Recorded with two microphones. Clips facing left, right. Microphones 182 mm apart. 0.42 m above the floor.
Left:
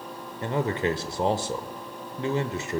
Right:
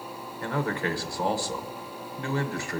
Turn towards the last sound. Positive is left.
turn(degrees=20)  # may be behind; listen again after turning